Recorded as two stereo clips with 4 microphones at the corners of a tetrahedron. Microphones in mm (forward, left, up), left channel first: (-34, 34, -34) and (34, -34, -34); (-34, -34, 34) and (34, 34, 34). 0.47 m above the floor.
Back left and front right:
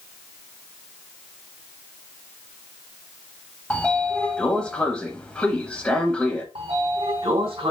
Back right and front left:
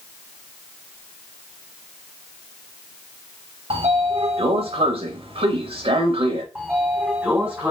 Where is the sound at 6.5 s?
25° right, 2.5 m.